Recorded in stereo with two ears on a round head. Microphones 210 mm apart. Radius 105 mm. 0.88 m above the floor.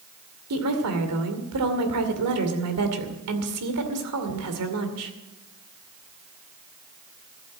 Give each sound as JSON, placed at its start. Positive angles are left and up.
{"t": 0.5, "sound": "a woman speaking", "side_deg": -75, "distance_m": 2.5}